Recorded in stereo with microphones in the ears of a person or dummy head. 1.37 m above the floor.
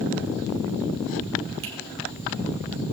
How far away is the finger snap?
About 3 m.